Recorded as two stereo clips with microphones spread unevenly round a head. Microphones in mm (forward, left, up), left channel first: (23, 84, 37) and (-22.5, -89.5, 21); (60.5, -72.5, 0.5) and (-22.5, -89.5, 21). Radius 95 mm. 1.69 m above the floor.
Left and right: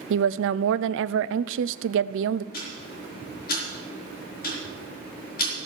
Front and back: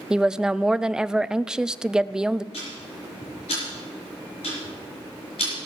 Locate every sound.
0.1 s a woman speaking: 85° right, 0.5 m
2.5 s ticking: 40° left, 4.5 m